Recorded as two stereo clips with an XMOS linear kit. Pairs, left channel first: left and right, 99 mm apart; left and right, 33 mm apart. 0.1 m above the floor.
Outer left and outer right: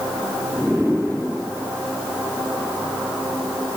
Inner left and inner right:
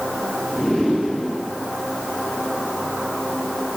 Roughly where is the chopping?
I don't hear chopping.